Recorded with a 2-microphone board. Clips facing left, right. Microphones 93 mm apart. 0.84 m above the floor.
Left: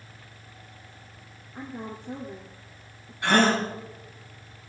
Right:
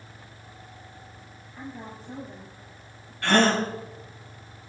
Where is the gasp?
20° left (ahead or behind), 4.5 m.